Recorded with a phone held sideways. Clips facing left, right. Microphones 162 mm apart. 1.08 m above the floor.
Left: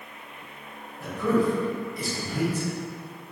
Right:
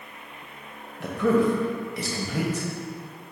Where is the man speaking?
75° right (ahead or behind), 0.9 m.